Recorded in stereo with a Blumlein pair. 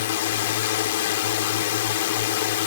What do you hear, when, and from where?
0.0 s a drone: 55° left